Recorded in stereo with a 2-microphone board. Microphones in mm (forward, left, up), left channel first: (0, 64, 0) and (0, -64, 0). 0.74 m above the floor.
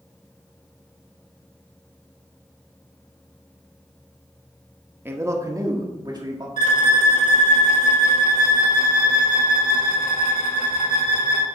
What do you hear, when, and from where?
5.0 s a man speaking: 15° right (ahead or behind), 0.8 m; by 6.5 s 35° right (ahead or behind), 1.6 m
6.6 s a violin: 90° left, 1.4 m